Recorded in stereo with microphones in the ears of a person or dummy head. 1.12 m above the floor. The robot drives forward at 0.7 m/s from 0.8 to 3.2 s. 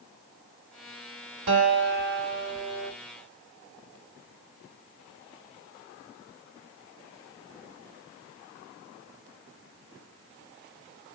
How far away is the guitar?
About 2.5 m.